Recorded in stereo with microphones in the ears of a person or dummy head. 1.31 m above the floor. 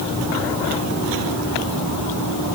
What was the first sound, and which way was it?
Only background noise.